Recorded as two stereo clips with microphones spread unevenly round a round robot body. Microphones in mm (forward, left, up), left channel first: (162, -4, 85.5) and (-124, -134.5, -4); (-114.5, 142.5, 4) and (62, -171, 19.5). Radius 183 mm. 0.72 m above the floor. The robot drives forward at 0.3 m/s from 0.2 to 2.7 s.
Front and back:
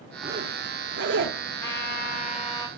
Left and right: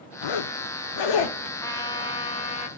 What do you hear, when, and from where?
0.2 s a zipper: 130° left, 0.5 m; by 1.4 s 150° left, 0.8 m
1.6 s a trumpet: 60° left, 0.8 m; by 2.7 s 125° left, 0.8 m